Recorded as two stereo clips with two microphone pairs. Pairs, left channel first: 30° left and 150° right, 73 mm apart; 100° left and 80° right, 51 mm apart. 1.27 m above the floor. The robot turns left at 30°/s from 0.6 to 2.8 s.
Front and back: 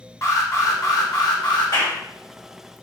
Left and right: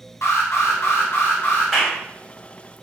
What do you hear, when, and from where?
0.2 s an alarm: 75° left, 1.1 m; by 1.7 s 45° left, 1.1 m
1.7 s a clap: 15° left, 2 m; by 2.0 s 5° left, 2 m